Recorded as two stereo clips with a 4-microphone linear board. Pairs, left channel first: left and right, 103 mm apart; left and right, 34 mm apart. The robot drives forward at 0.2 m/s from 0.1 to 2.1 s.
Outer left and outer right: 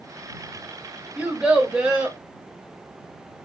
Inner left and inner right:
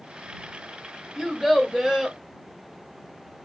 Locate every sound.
1.2 s a child speaking: 15° right (ahead or behind), 0.5 m; by 2.2 s 10° right (ahead or behind), 0.6 m